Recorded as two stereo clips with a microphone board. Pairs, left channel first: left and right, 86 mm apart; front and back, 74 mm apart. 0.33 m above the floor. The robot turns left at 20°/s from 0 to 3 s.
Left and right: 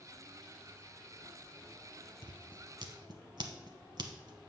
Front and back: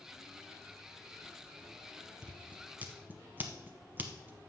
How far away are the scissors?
About 0.9 m.